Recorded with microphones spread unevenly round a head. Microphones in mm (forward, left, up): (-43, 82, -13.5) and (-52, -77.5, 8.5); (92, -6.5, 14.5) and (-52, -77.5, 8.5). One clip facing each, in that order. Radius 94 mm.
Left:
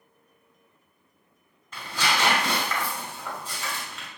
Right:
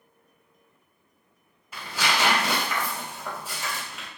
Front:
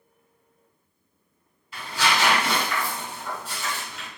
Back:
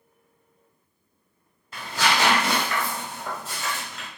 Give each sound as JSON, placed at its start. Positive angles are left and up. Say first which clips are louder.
{"t": 1.7, "sound": "tearing paper", "louder": "even, back 1 dB", "azimuth_deg": -160, "distance_m": 1.2}